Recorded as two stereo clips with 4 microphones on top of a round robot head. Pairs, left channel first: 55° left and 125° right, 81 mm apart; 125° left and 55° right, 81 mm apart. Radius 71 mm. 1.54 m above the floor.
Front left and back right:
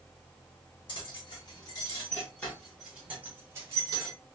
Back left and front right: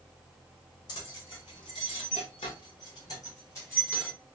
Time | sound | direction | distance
0.9 | keys jangling | 85° left | 1.4 m